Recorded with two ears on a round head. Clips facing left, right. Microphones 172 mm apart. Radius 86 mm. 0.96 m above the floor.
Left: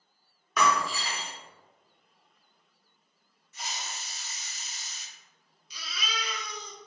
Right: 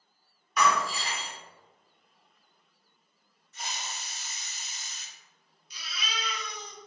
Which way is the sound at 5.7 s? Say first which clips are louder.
Left 1 dB; 65° left (ahead or behind).